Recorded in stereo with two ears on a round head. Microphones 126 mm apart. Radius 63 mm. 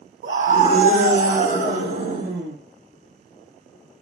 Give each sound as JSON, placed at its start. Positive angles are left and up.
{"t": 0.2, "sound": "a scream", "side_deg": -70, "distance_m": 1.3}